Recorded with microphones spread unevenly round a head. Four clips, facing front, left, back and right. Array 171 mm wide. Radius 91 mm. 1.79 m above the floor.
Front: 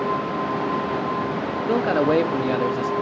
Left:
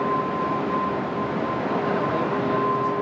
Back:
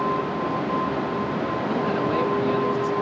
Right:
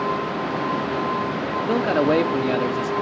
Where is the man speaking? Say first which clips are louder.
Right 8 dB, front 7 dB; 45° right, 1.4 m.